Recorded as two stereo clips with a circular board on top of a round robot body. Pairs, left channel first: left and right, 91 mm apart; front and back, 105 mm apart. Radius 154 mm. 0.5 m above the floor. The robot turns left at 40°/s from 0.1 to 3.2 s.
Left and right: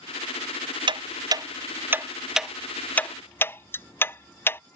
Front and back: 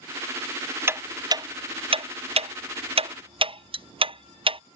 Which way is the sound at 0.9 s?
115° right.